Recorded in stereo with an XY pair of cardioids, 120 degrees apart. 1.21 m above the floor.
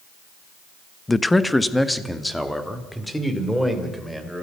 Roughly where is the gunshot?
No gunshot in this recording.